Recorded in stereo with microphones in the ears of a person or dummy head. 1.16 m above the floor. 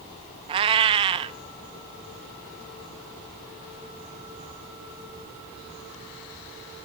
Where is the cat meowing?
30° right (ahead or behind), 0.5 m.